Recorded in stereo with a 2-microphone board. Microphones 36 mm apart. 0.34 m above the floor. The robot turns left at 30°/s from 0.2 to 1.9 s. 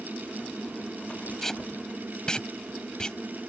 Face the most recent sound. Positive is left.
turn(degrees=25)  # may be behind; listen again after turning